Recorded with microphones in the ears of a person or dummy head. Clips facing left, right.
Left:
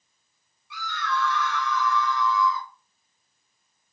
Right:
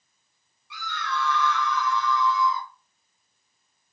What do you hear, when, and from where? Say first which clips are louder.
0.7 s a scream: left 2 dB; 65° right (ahead or behind), 4 m; by 2.7 s 75° right (ahead or behind), 4.5 m